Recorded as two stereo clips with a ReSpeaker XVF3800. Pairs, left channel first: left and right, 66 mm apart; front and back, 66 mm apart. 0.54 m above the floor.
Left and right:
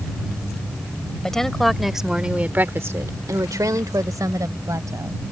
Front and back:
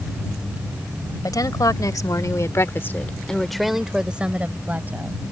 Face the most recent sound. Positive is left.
turn(degrees=-120)